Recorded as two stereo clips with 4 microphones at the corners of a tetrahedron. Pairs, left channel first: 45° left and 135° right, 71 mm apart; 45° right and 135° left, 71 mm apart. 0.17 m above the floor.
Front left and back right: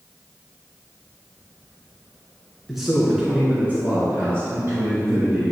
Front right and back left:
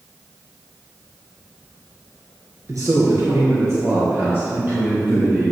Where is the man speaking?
135° left, 2 m; by 5.5 s 160° right, 3.5 m.